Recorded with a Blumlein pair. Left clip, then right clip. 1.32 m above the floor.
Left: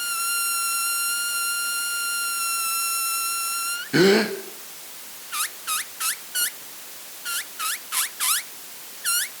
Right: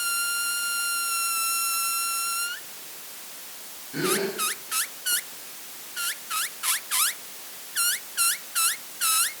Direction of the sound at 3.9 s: 35° left.